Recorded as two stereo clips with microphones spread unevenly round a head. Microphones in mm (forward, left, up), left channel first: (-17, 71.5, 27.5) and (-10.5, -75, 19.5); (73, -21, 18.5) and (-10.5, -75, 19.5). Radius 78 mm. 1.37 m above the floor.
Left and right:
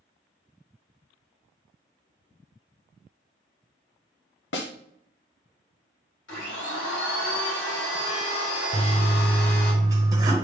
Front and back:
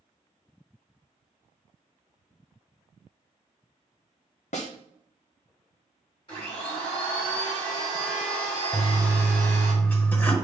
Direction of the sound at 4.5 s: 70° left.